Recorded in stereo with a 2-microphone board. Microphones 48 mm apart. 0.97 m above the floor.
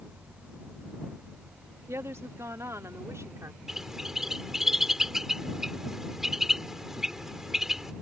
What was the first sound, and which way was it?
A woman speaking, 65° right (ahead or behind).